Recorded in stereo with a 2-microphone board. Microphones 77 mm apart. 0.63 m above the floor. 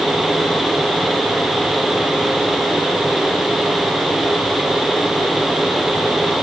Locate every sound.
Only background noise.